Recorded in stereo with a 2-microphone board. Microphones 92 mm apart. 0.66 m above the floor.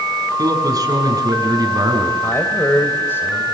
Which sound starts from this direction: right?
A man speaking, at 0.4 s.